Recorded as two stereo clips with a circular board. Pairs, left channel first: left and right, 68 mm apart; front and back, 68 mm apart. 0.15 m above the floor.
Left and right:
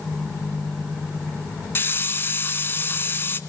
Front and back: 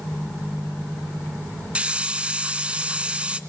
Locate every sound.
1.8 s a hiss: 115° left, 1.2 m